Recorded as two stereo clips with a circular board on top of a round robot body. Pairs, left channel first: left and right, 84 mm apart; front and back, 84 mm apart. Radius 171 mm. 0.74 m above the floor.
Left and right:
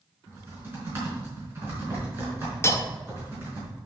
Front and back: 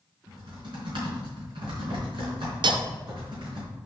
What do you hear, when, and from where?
0.3 s typing on a keyboard: 150° right, 4 m
2.6 s cutlery clinking: 150° left, 0.6 m